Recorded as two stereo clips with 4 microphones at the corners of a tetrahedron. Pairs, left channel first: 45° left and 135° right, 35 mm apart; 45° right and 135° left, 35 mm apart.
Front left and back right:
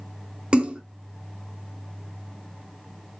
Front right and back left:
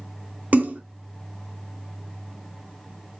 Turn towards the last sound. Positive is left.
turn(degrees=165)